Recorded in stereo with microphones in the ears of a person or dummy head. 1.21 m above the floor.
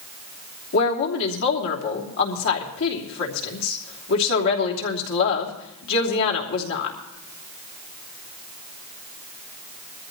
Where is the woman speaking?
65° left (ahead or behind), 3 m.